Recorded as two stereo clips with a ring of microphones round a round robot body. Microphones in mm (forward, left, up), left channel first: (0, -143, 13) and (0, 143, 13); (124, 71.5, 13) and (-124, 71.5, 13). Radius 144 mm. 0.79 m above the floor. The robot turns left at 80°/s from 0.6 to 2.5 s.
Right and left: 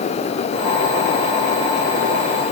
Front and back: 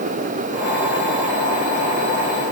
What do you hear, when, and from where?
Only background noise.